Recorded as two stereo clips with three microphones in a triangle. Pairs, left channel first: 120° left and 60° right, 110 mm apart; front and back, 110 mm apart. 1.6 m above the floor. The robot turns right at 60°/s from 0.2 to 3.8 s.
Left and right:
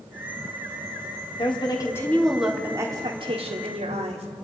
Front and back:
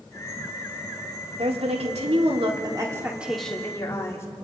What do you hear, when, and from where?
1.4 s a woman speaking: 150° left, 3.5 m; by 4.3 s 65° right, 3.5 m